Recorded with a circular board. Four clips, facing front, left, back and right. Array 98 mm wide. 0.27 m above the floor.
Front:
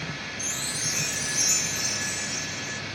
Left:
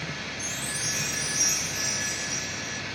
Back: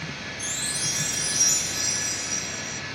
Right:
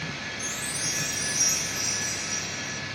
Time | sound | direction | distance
0.4 | a chime | straight ahead | ?